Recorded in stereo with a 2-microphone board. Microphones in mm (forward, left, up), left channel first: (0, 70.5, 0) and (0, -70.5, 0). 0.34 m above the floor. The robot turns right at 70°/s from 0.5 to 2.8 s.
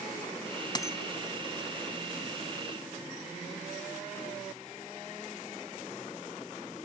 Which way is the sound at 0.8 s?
30° left (ahead or behind).